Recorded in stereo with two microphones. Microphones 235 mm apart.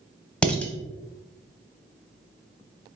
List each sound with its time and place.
0.4 s dishes clattering: 5° left (ahead or behind), 0.7 m